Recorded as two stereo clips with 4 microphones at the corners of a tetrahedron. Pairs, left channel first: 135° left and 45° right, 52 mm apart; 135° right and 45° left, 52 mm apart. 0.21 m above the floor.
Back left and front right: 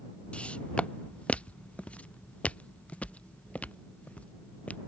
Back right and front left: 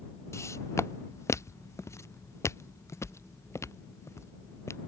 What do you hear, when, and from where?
0.3 s footsteps: 155° right; by 4.8 s 160° right